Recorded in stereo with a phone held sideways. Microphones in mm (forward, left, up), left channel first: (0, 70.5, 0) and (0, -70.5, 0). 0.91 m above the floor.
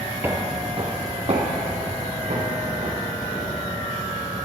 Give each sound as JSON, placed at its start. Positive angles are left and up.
{"t": 0.2, "sound": "footsteps", "side_deg": -15, "distance_m": 1.0}